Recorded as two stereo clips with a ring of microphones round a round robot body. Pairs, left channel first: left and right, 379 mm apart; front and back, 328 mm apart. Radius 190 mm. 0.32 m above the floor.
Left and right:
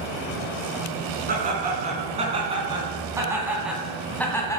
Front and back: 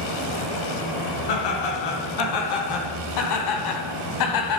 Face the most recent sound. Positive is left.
turn(degrees=10)